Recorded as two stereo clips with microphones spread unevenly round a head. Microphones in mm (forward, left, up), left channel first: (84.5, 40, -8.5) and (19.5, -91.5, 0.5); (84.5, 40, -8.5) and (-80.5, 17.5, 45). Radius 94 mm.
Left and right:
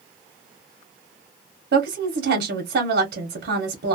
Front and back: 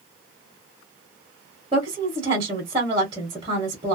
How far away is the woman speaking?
About 0.9 m.